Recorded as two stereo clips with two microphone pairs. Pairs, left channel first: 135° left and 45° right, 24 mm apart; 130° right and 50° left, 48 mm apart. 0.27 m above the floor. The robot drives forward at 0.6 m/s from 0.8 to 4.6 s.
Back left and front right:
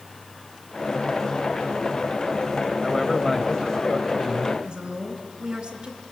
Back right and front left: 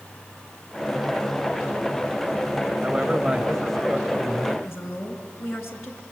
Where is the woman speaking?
95° right, 2.5 m.